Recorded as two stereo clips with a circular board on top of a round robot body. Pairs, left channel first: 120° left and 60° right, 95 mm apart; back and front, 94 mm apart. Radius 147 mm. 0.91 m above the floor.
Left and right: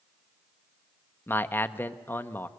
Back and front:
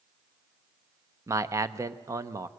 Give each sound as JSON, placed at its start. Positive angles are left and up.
{"t": 1.3, "sound": "a man speaking", "azimuth_deg": 55, "distance_m": 0.9}